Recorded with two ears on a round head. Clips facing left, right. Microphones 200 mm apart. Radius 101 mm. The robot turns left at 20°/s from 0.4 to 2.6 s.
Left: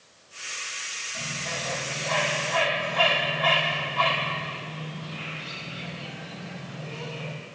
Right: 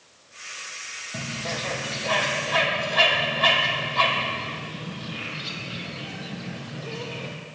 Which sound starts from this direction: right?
A bird, at 1.1 s.